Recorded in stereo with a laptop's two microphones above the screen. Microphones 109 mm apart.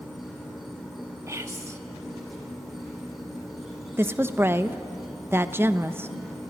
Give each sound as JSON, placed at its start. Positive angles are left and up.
{"t": 0.0, "sound": "an insect", "side_deg": 0, "distance_m": 5.5}
{"t": 1.3, "sound": "whispering", "side_deg": -25, "distance_m": 1.3}
{"t": 4.0, "sound": "a woman speaking", "side_deg": -20, "distance_m": 0.8}